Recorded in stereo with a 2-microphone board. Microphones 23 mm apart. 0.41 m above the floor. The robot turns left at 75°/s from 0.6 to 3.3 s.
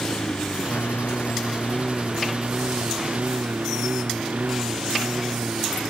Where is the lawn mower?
70° left (ahead or behind); by 5.9 s 90° right.